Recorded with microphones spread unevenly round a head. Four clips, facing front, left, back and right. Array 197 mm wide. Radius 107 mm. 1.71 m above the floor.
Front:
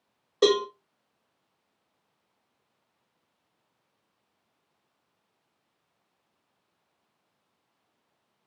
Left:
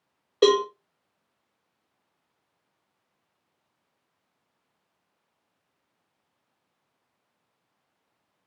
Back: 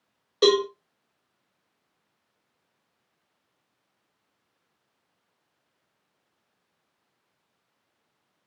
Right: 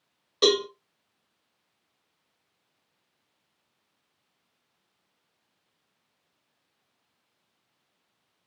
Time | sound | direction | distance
0.4 | a cowbell | 70° left | 1.4 m